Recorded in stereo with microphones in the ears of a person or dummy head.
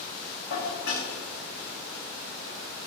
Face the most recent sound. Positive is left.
turn(degrees=70)  # may be behind; listen again after turning